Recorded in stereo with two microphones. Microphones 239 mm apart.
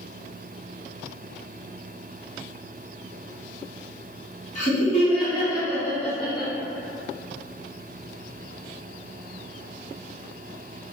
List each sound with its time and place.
4.5 s laughter: 35° left (ahead or behind), 1.3 m; by 6.5 s 5° right (ahead or behind), 1.4 m